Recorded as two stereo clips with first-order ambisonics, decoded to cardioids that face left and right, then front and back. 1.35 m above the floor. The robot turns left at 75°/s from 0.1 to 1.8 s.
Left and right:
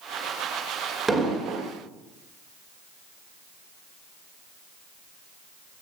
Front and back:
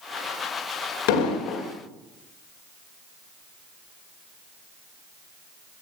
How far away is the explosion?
About 2.5 m.